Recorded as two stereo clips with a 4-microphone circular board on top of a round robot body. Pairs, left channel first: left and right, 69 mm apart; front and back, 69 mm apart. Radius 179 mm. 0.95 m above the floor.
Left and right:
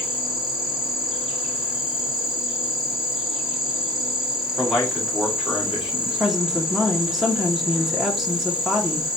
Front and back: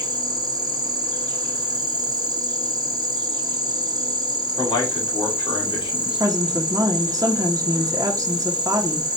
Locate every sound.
0.0 s an insect: 170° right, 1.0 m
4.6 s a man speaking: 5° right, 1.7 m
6.2 s a woman speaking: 175° right, 0.8 m